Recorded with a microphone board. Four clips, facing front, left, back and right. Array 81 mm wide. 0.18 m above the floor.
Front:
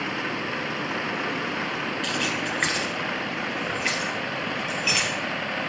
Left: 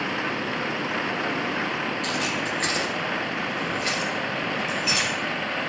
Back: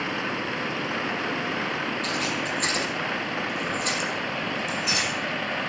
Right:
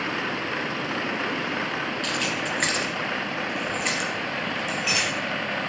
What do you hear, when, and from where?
2.0 s keys jangling: 15° right, 1.6 m; by 5.1 s 5° right, 3 m